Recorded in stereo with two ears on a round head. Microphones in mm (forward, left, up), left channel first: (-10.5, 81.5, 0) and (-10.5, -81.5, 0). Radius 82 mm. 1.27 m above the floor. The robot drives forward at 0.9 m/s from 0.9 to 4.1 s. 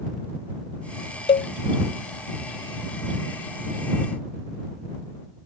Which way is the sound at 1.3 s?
30° left (ahead or behind).